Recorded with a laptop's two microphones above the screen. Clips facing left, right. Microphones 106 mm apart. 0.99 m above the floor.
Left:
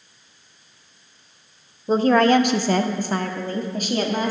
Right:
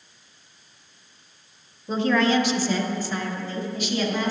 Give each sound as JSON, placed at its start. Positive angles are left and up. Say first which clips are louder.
{"t": 1.9, "sound": "a woman speaking", "louder": "left 5 dB", "side_deg": 35, "distance_m": 0.5}